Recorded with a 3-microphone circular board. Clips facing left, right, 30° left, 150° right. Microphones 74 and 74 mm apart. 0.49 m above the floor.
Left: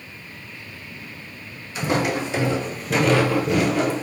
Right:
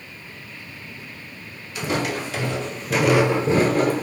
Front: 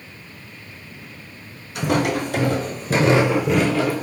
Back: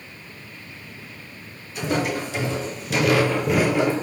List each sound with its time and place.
1.8 s footsteps: 30° left, 1.2 m; by 4.0 s 100° right, 0.7 m